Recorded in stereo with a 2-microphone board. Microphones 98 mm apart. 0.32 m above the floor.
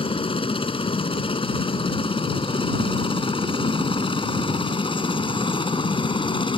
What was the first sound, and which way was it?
A helicopter, 65° left (ahead or behind).